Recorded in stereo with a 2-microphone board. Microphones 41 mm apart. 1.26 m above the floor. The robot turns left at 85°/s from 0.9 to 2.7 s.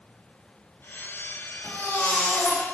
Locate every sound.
1.6 s a baby crying: 140° left, 1.6 m; by 2.7 s 50° left, 1.6 m